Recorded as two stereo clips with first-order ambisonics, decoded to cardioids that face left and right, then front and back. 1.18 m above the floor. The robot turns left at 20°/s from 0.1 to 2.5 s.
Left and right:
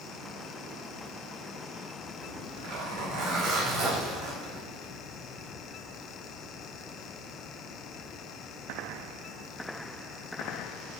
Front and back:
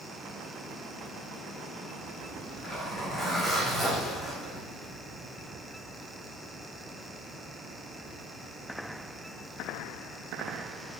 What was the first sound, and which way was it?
A zipper, 85° right.